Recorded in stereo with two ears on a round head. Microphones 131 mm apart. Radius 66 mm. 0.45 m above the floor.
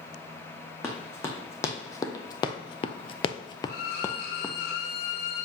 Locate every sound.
0.8 s running footsteps: 15° left (ahead or behind), 1.6 m; by 4.5 s 10° left (ahead or behind), 0.9 m
3.7 s a violin: 70° left (ahead or behind), 1.4 m